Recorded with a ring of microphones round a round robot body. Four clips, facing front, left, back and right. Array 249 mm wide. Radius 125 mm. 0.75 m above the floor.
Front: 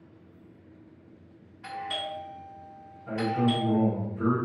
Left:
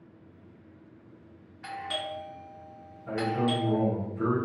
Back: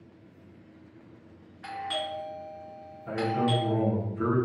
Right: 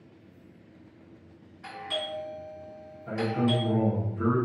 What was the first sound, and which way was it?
A doorbell, 135° left.